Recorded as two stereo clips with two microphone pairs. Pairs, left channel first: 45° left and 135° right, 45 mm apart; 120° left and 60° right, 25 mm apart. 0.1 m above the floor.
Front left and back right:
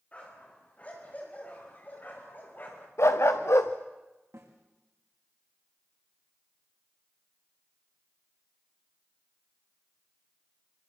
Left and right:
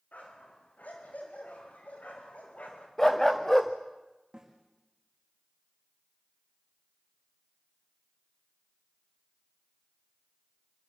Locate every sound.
0.1 s a dog barking: 110° left, 8.5 m; by 2.9 s 90° left, 6.5 m
3.0 s a dog barking: 45° left, 2.5 m
4.3 s a snare drum: 115° right, 6.5 m